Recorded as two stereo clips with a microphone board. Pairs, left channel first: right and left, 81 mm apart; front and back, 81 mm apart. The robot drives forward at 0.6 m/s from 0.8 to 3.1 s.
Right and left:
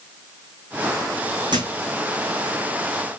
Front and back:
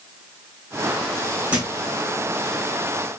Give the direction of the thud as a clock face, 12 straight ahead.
8 o'clock.